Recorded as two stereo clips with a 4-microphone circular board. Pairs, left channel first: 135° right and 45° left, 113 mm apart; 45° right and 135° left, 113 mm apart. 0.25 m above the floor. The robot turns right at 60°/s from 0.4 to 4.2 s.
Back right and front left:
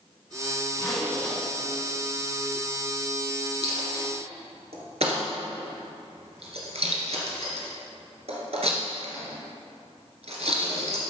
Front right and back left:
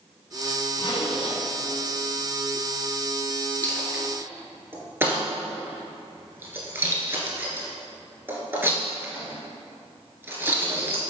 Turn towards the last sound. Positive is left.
turn(degrees=65)